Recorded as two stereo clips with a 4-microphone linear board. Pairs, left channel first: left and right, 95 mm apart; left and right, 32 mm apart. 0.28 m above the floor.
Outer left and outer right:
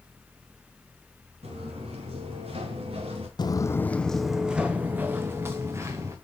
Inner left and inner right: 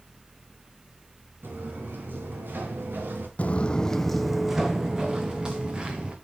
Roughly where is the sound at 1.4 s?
Right.